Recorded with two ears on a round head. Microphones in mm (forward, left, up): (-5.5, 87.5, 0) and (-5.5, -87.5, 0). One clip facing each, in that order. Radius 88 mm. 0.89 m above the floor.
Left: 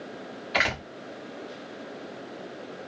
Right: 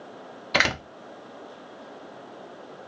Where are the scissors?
No scissors in this recording.